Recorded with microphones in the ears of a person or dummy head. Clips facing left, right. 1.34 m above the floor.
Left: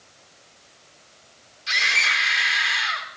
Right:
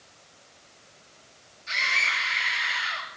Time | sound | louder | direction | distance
1.7 | a scream | left 3 dB | 85° left | 5.5 m